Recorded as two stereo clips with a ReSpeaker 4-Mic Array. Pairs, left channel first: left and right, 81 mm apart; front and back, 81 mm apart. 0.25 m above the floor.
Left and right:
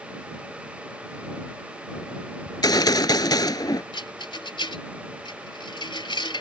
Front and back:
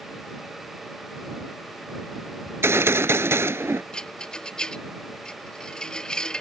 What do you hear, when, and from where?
2.5 s a gunshot: 120° left
3.9 s a rattle: 80° left